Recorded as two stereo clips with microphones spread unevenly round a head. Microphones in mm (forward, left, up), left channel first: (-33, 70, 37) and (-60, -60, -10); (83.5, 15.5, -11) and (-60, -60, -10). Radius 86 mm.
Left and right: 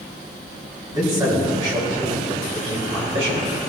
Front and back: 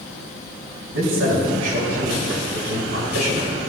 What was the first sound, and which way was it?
A man speaking, 170° right.